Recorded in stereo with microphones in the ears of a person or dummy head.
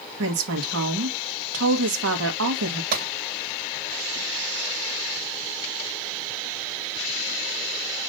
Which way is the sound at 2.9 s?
60° right (ahead or behind).